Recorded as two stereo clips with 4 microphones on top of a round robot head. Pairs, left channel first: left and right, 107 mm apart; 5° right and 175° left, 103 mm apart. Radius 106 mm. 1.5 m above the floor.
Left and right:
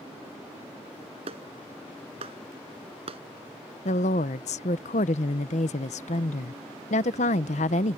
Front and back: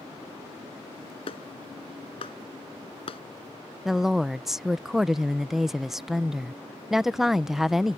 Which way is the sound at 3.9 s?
90° left.